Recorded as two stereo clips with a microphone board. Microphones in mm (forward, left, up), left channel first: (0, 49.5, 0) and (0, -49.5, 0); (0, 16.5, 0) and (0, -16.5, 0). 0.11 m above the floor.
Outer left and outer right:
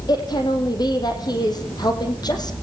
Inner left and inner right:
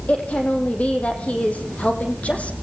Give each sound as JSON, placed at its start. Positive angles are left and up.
{"t": 0.1, "sound": "a woman speaking", "side_deg": 45, "distance_m": 5.0}